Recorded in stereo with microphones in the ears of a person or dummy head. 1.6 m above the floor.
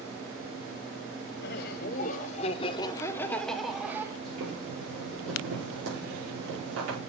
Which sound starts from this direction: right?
Boiling, at 4.2 s.